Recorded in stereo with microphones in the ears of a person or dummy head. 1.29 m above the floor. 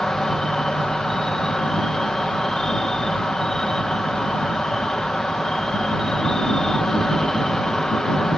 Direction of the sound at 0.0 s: Centre (ahead or behind).